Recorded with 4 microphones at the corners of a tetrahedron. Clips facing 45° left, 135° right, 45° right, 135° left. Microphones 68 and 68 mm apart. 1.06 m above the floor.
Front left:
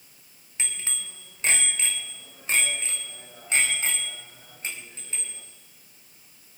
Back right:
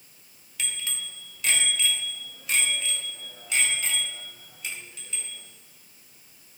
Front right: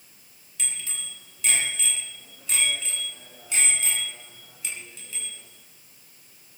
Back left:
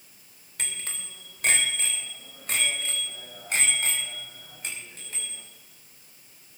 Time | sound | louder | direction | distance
0.6 | a bicycle bell | back right 1 dB, back left 1 dB | 105° left | 3 m